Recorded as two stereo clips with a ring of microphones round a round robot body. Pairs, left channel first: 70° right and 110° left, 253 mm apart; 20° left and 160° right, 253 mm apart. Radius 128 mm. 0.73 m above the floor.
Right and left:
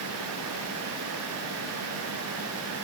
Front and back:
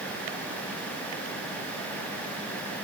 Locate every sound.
Only background noise.